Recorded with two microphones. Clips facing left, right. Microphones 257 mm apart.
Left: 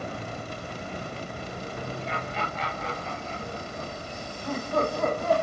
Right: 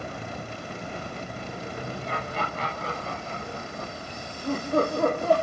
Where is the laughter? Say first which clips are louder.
Right 1 dB; 45° right (ahead or behind), 3 m; by 5.3 s 30° right (ahead or behind), 4.5 m.